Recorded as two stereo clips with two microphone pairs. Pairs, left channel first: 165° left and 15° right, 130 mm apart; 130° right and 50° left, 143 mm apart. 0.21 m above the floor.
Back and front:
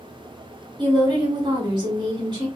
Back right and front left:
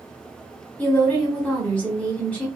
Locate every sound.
0.8 s a woman speaking: 55° right, 1.8 m